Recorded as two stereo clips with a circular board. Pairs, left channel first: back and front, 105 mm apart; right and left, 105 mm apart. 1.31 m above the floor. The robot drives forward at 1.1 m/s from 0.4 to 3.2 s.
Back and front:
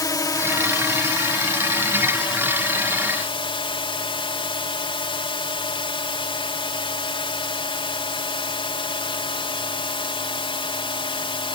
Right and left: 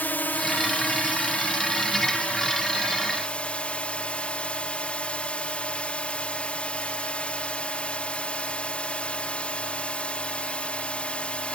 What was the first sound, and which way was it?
A drone, 155° right.